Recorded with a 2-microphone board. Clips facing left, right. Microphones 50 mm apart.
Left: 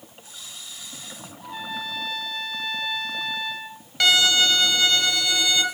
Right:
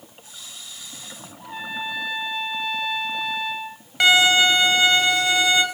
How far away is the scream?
I don't hear a scream.